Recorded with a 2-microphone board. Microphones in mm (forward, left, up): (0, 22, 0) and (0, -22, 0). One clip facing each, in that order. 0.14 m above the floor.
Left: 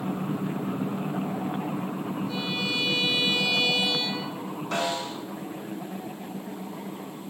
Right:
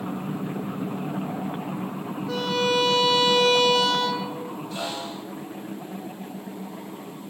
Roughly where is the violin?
Right.